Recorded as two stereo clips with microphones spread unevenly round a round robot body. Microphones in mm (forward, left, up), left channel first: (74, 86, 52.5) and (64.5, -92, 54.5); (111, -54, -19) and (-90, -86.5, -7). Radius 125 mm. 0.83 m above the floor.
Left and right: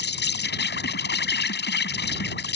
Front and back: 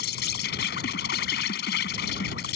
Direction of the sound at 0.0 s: 65° left.